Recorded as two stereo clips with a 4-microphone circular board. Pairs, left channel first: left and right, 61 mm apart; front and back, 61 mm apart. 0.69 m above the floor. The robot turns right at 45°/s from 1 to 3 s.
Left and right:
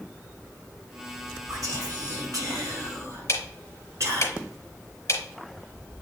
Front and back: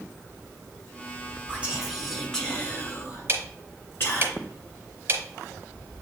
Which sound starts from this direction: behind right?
Whispering, at 1.5 s.